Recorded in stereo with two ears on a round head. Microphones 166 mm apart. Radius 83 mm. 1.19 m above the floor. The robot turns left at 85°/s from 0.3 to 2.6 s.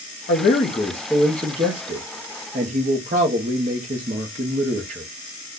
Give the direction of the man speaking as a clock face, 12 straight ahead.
10 o'clock.